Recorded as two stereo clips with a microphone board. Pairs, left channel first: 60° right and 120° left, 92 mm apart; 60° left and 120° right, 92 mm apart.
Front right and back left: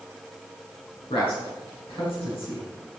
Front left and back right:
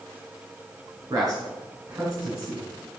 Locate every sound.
1.1 s a man speaking: 75° right, 5.5 m